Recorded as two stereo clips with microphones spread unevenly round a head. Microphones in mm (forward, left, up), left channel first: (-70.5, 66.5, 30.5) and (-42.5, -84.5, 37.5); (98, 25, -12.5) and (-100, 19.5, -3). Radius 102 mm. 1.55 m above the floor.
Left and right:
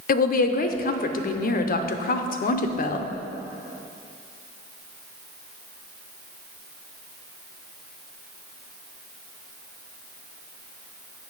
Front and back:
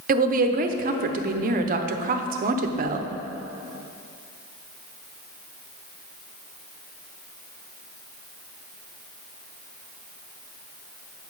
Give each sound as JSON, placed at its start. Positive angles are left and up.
{"t": 0.1, "sound": "a woman speaking", "azimuth_deg": 130, "distance_m": 0.7}